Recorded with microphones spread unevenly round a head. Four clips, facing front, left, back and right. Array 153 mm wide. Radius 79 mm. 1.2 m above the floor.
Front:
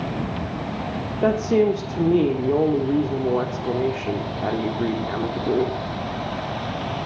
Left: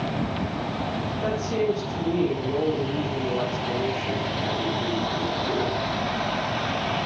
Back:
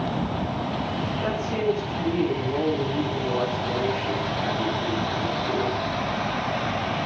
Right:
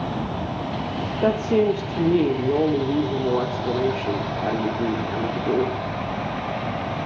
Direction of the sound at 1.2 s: 40° right.